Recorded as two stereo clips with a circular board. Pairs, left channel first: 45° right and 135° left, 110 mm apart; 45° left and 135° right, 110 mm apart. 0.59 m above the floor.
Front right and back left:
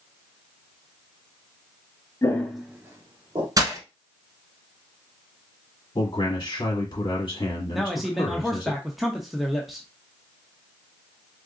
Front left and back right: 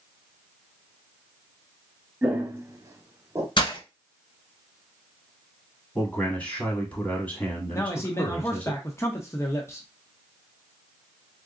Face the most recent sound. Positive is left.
turn(degrees=45)